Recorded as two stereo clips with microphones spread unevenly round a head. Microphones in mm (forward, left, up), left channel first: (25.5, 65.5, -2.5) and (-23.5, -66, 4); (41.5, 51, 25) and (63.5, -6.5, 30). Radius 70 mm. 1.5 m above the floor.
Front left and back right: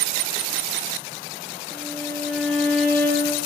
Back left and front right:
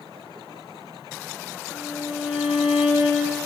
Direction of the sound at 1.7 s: 150° left.